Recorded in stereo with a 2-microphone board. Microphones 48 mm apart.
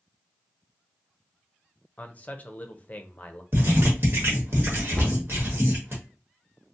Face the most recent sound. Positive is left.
turn(degrees=25)  # may be behind; listen again after turning